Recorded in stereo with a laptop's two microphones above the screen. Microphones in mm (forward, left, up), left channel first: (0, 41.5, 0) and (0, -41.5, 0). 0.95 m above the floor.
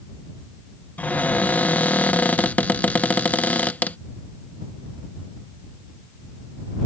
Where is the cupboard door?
20° left (ahead or behind).